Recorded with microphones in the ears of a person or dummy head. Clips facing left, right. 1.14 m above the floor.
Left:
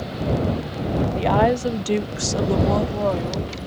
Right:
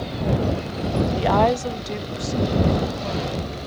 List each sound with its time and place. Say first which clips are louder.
1.1 s a woman speaking: left 1 dB; 10° right (ahead or behind); by 3.6 s 85° left